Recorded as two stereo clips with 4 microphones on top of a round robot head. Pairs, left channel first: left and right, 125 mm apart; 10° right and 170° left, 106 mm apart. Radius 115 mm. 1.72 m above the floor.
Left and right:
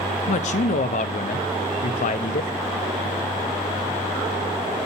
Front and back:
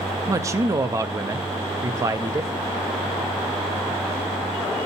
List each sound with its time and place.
0.3 s a man speaking: 110° left, 0.6 m